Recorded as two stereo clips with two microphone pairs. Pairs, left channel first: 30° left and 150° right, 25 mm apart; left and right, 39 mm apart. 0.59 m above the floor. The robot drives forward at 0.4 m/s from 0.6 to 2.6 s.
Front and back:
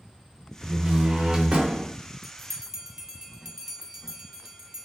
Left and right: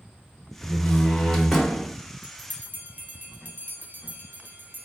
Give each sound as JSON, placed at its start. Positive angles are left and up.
{"t": 0.6, "sound": "a door slam", "azimuth_deg": 165, "distance_m": 0.5}
{"t": 2.2, "sound": "a bell", "azimuth_deg": -70, "distance_m": 0.5}